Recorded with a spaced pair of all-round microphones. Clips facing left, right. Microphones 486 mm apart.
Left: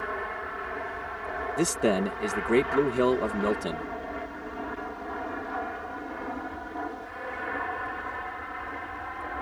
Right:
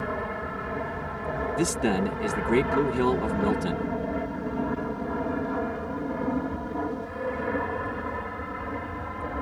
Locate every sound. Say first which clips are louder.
0.0 s an aircraft: right 4 dB; 65° right (ahead or behind)
1.6 s a man speaking: left 1 dB; 10° right (ahead or behind)